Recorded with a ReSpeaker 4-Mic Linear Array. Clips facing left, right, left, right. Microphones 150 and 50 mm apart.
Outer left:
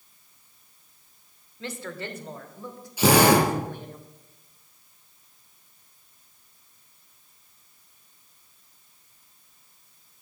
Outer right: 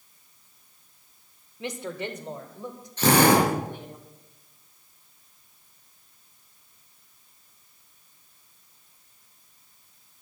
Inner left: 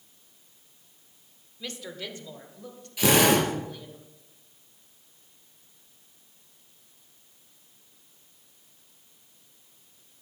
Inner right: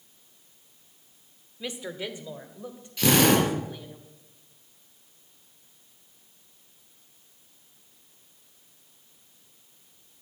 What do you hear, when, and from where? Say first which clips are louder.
1.6 s a woman speaking: outer right 3 dB, inner right 3 dB; 15° right (ahead or behind), 1.2 m; by 4.0 s 20° right (ahead or behind), 3.5 m
3.0 s a drill: outer left 1 dB, even; 10° left (ahead or behind), 5.5 m